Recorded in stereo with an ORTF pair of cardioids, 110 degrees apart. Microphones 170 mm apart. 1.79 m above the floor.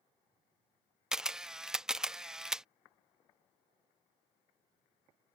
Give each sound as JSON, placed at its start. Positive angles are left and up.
{"t": 1.1, "sound": "a camera shutter", "azimuth_deg": -5}